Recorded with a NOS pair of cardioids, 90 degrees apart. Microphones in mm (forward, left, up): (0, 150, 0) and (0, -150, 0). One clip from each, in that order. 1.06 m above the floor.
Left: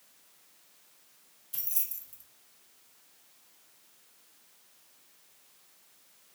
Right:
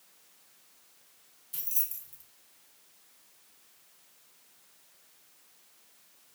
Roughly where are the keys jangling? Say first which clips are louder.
Even; ahead.